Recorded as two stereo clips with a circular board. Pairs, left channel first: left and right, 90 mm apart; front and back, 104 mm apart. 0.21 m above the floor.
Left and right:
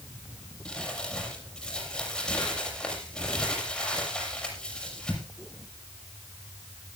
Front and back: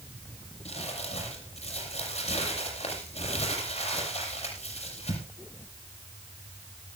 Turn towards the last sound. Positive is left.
turn(degrees=10)